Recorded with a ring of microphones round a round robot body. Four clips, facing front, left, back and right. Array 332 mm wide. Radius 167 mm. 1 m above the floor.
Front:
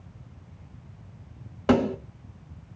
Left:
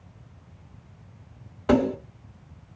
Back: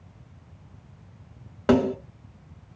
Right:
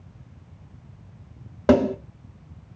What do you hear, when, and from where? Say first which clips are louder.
1.7 s a snare drum: right 3 dB, back 2 dB; 105° right, 1.3 m